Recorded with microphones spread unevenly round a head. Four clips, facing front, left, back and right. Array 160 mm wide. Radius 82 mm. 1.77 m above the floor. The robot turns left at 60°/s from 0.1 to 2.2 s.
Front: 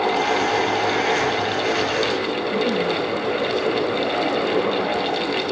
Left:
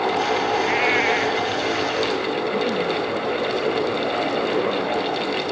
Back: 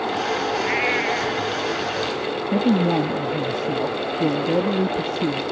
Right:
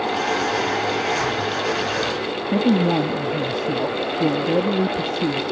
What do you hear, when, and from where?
0.6 s a cat meowing: 85° left; by 1.4 s 40° left
2.5 s a man speaking: 130° right